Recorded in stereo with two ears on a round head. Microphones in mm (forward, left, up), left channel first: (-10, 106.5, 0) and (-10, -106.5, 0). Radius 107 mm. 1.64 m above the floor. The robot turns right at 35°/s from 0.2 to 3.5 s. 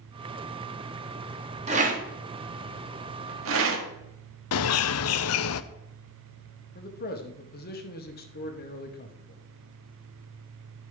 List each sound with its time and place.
1.7 s a rattle: 30° right (ahead or behind), 1.7 m; by 3.8 s 60° right (ahead or behind), 1.7 m
4.5 s a bird: 65° left (ahead or behind), 0.6 m
6.8 s a man speaking: 40° left (ahead or behind), 1.7 m